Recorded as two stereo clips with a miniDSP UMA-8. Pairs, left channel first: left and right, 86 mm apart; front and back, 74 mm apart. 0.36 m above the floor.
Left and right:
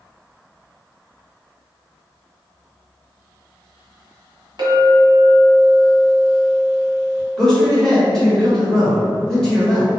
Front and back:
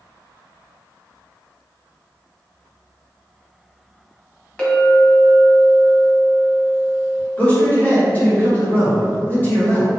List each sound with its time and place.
4.6 s a clink: 75° right, 1.2 m
7.4 s a man speaking: 20° left, 1.2 m